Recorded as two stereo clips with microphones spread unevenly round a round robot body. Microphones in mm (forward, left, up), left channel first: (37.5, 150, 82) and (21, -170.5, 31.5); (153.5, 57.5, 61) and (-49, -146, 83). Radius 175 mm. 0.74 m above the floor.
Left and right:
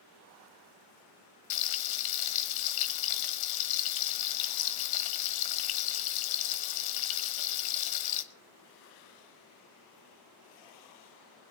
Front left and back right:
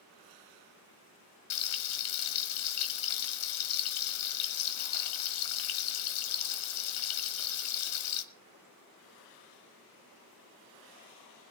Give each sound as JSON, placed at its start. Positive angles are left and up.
{"t": 1.5, "sound": "frying", "azimuth_deg": 75, "distance_m": 1.3}